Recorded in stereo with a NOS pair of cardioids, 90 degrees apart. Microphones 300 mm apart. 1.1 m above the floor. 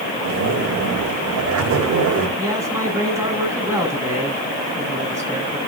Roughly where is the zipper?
Ahead right.